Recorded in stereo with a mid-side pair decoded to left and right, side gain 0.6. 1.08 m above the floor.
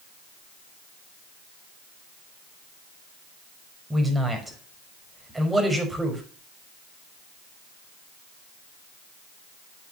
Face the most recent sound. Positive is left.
turn(degrees=-10)